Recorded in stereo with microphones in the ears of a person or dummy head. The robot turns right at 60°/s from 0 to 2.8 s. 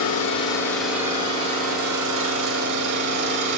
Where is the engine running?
130° left, 6.5 m; by 3.6 s 65° right, 6.5 m.